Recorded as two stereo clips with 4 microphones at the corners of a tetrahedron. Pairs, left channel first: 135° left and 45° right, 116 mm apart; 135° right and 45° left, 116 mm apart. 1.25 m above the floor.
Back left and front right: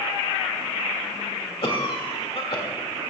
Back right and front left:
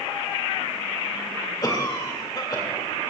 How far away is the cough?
About 2.0 m.